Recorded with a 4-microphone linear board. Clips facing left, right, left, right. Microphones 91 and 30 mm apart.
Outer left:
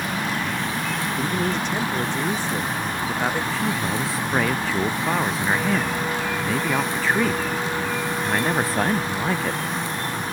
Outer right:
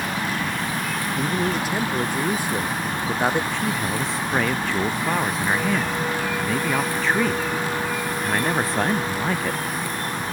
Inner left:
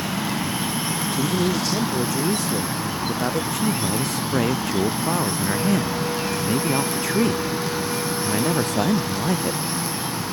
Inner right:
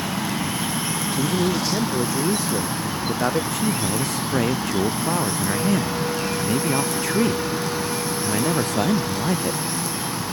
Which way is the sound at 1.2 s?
Centre (ahead or behind).